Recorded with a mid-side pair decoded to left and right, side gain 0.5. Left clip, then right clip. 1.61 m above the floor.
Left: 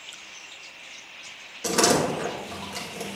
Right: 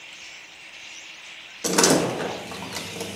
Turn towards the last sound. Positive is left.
turn(degrees=-25)